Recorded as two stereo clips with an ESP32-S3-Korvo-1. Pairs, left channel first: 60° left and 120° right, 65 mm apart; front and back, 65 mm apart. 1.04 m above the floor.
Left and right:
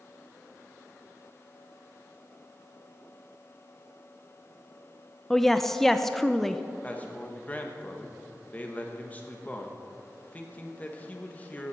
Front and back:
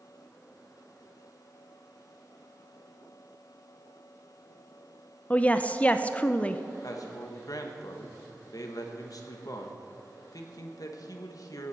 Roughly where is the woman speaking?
Ahead.